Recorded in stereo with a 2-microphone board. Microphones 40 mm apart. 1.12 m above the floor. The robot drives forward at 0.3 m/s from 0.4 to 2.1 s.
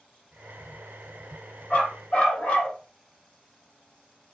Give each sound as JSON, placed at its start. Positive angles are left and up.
{"t": 1.7, "sound": "a dog barking", "side_deg": 30, "distance_m": 0.9}